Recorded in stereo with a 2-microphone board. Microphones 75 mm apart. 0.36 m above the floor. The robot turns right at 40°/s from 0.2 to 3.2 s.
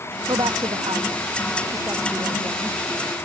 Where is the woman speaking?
80° right; by 2.8 s centre (ahead or behind).